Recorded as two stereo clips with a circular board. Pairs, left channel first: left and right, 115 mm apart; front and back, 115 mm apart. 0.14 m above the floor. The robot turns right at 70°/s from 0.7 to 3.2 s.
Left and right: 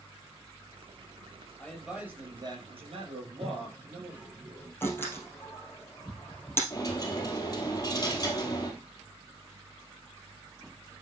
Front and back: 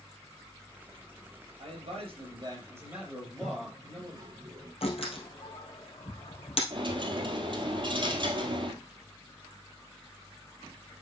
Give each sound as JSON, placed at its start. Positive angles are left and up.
{"t": 1.6, "sound": "a man speaking", "azimuth_deg": 165, "distance_m": 3.5}
{"t": 3.3, "sound": "a toilet flushing", "azimuth_deg": -160, "distance_m": 1.8}
{"t": 4.8, "sound": "a door slam", "azimuth_deg": 20, "distance_m": 2.5}
{"t": 6.7, "sound": "a dropped coin", "azimuth_deg": 145, "distance_m": 1.7}